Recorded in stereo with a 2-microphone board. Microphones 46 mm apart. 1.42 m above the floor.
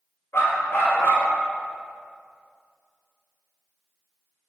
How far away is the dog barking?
About 2.5 m.